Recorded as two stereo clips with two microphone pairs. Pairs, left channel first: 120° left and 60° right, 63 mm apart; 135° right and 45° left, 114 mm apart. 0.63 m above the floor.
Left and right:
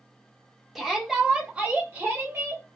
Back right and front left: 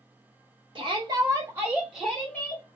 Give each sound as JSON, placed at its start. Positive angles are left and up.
{"t": 0.8, "sound": "a shout", "azimuth_deg": 35, "distance_m": 0.9}